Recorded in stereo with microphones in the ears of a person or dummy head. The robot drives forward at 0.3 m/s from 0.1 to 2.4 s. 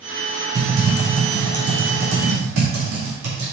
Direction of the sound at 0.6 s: 80° right.